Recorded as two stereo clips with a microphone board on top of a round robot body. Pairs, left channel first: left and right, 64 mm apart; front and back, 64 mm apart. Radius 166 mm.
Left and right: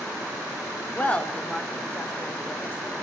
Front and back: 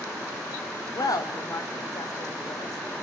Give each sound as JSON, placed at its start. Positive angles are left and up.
{"t": 0.9, "sound": "a woman speaking", "azimuth_deg": 20, "distance_m": 2.0}